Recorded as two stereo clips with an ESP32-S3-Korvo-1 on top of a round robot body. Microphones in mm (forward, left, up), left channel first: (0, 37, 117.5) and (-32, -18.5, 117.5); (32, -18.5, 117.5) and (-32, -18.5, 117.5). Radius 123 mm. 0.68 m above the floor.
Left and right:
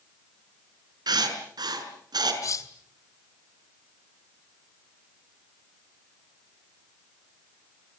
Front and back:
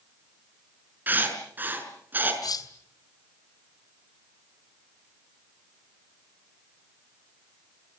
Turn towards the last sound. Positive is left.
turn(degrees=20)